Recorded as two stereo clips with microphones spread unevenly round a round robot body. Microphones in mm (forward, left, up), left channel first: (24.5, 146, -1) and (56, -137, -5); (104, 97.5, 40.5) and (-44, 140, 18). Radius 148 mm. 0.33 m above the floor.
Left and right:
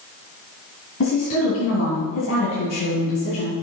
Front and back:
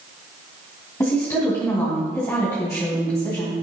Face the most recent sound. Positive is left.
turn(degrees=55)